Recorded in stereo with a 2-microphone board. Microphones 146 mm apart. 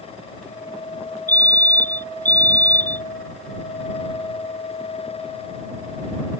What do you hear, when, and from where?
1.3 s a fire alarm: 60° left (ahead or behind)